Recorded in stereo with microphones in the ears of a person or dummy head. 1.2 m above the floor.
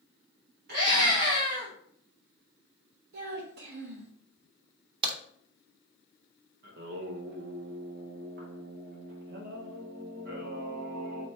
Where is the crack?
30° right (ahead or behind), 0.8 m.